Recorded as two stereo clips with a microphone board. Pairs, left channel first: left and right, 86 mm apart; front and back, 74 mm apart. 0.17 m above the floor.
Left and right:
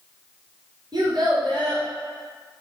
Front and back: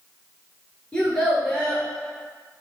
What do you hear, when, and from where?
0.9 s a child speaking: 75° right, 1.5 m